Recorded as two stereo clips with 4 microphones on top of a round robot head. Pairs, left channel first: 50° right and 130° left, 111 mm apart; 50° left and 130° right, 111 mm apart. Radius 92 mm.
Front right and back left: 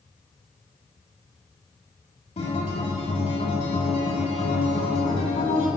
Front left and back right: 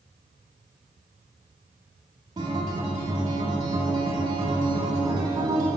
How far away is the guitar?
About 2 m.